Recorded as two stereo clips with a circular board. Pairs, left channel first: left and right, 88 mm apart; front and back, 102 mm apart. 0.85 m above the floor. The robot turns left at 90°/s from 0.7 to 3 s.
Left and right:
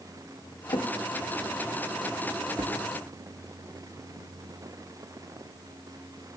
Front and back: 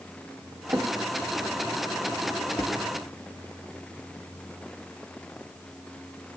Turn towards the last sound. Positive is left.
turn(degrees=-85)